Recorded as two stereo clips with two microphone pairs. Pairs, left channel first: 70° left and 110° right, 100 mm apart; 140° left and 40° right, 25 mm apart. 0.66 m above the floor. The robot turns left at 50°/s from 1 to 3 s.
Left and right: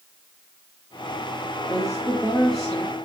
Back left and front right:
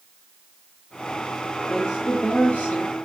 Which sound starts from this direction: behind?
A woman speaking, at 1.7 s.